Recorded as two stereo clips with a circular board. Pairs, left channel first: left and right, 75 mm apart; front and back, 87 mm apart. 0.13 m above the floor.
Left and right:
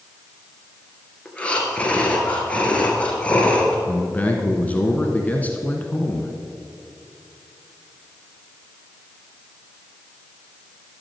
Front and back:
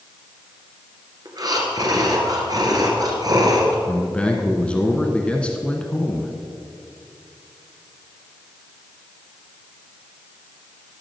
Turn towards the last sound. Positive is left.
turn(degrees=60)